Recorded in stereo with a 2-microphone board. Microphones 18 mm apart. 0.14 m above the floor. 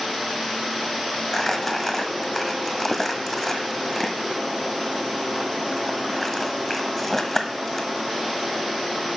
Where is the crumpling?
15° left (ahead or behind), 1.0 m.